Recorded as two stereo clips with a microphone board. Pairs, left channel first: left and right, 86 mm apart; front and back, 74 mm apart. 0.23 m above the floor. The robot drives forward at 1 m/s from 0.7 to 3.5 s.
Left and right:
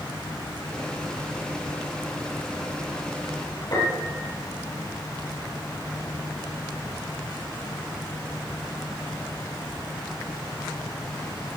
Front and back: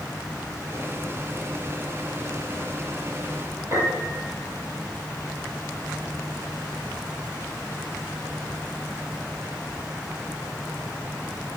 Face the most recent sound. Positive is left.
turn(degrees=125)